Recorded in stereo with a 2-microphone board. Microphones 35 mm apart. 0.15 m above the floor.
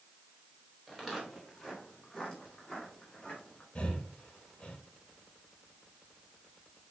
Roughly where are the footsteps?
Centre.